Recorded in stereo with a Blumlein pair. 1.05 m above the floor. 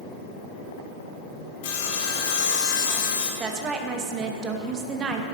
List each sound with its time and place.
1.6 s sawing: 50° left, 0.8 m
3.4 s a woman speaking: 25° right, 0.6 m